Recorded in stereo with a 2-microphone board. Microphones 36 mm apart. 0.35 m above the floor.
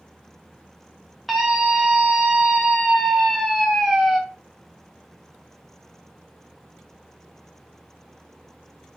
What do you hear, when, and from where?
1.3 s a scream: centre (ahead or behind), 0.9 m